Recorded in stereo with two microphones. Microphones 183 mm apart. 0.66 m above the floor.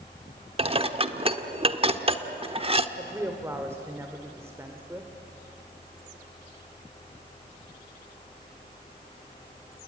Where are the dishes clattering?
30° right (ahead or behind), 1.1 m.